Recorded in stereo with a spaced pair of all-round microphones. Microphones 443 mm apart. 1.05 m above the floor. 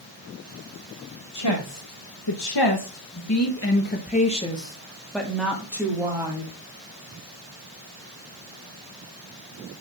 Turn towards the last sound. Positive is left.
turn(degrees=-10)  # may be behind; listen again after turning